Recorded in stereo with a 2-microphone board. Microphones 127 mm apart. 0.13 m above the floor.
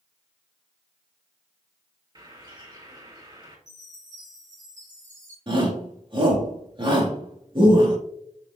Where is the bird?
35° right (ahead or behind), 2.5 m.